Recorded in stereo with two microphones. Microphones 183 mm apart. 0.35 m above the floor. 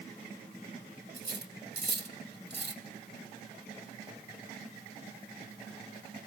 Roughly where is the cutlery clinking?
Right.